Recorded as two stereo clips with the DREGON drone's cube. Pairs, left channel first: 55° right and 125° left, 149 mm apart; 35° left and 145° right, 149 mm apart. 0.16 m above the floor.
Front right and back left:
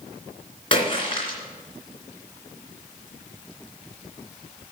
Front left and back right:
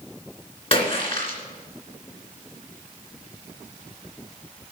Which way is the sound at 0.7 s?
10° right.